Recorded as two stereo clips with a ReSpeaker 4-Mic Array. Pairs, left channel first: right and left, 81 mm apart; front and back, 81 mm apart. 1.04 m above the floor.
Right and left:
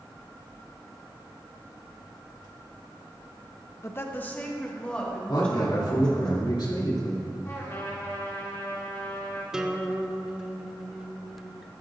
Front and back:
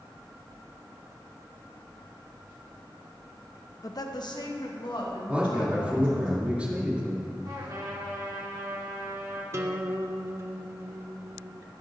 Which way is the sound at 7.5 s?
145° right.